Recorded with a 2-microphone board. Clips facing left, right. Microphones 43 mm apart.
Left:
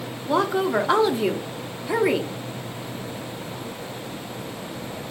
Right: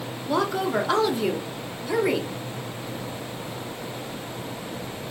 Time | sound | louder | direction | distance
0.3 | a woman speaking | left 3 dB | 20° left (ahead or behind) | 0.6 m